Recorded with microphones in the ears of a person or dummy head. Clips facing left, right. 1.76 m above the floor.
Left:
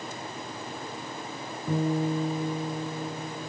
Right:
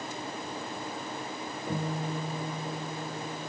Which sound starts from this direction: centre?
A guitar, at 1.7 s.